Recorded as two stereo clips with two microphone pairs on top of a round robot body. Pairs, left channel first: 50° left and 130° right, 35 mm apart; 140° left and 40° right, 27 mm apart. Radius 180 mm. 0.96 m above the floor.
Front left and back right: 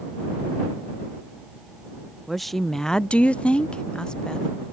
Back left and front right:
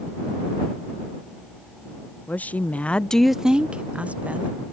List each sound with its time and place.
2.3 s a woman speaking: 140° left; by 4.5 s 20° right